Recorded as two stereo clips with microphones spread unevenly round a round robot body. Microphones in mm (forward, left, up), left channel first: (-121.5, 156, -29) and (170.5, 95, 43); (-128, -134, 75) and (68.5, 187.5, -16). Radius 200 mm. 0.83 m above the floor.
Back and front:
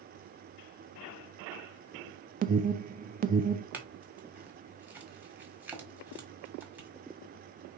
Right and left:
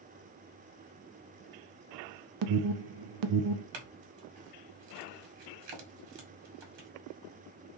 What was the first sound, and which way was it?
An alarm, 60° left.